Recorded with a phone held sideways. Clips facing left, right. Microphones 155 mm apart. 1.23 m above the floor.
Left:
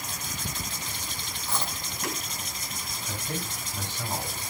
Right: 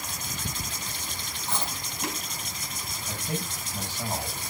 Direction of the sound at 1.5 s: 20° right (ahead or behind).